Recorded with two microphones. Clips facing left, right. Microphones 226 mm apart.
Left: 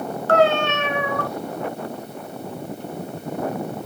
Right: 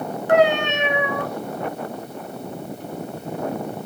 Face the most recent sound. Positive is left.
turn(degrees=-15)  # may be behind; listen again after turning